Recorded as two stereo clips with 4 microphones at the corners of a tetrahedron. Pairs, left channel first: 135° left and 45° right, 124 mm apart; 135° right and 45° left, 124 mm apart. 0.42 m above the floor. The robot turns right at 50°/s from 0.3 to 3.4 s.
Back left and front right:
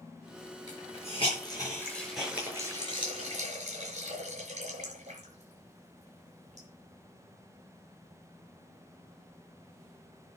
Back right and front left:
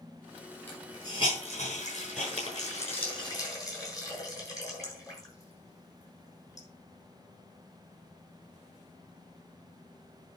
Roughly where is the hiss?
Behind left.